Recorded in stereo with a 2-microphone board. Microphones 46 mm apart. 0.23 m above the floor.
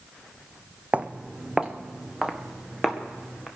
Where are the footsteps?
30° right (ahead or behind), 0.7 m; by 3.5 s 5° right (ahead or behind), 3 m.